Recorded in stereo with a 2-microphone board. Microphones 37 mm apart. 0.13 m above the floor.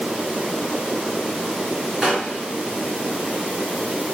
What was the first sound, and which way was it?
A gunshot, 15° right (ahead or behind).